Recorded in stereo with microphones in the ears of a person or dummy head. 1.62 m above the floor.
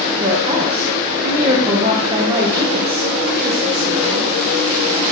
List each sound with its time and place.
0.2 s a woman speaking: 30° right (ahead or behind), 1.0 m